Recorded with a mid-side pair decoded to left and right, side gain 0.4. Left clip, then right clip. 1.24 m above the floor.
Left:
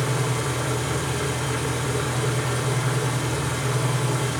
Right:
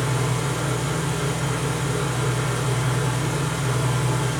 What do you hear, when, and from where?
0.0 s an engine running: 35° left, 3 m